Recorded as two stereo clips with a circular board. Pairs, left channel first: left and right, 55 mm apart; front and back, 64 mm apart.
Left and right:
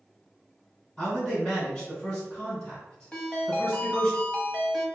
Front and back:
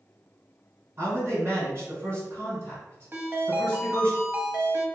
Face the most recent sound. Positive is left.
turn(degrees=150)